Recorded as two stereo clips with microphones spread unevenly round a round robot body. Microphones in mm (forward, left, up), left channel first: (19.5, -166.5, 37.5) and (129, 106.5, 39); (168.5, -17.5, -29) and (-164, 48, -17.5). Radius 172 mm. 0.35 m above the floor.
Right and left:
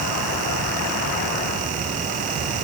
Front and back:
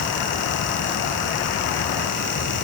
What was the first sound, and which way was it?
Only background noise.